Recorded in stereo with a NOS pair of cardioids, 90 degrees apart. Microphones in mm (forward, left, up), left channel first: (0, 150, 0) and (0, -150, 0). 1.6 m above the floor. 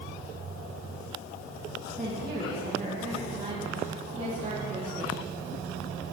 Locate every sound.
2.0 s a woman speaking: 25° right, 1.8 m; by 5.3 s 40° right, 4.5 m